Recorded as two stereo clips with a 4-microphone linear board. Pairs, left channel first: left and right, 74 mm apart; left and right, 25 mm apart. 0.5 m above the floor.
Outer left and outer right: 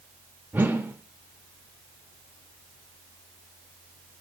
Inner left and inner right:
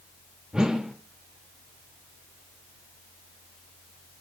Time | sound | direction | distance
0.5 | a whoosh | 25° right (ahead or behind) | 1.2 m